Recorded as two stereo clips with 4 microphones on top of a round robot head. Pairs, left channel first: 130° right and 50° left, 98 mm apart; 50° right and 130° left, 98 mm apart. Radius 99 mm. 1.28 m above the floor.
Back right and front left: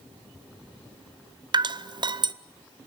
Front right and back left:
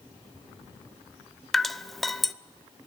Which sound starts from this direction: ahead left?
Dripping, at 1.5 s.